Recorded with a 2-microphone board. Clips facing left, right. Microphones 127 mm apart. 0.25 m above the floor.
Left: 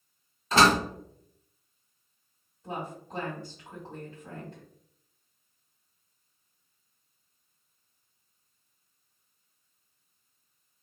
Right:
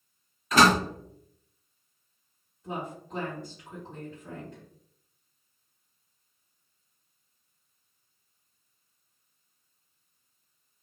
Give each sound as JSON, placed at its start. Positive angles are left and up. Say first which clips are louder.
{"t": 0.5, "sound": "a door slam", "louder": "right 1 dB", "side_deg": 30, "distance_m": 0.7}
{"t": 2.6, "sound": "a woman speaking", "louder": "right 1 dB", "side_deg": 35, "distance_m": 1.8}